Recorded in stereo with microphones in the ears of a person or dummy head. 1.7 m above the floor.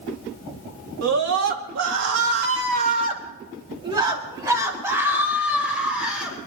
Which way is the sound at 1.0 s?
85° right.